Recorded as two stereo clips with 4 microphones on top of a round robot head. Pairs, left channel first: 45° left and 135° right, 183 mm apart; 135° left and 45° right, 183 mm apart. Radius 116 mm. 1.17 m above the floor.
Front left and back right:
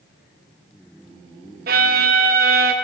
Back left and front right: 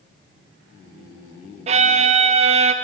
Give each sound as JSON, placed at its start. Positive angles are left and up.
{"t": 1.7, "sound": "a violin", "azimuth_deg": -95, "distance_m": 0.6}